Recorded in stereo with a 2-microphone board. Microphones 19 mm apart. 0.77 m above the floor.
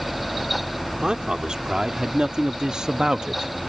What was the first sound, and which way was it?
A man speaking, 50° right (ahead or behind).